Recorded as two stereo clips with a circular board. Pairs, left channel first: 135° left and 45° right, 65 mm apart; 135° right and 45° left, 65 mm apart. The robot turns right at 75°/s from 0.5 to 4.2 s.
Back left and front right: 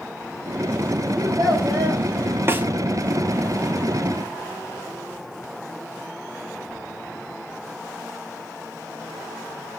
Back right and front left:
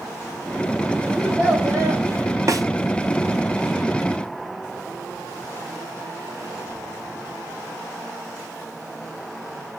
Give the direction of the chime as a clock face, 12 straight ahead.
I don't hear a chime.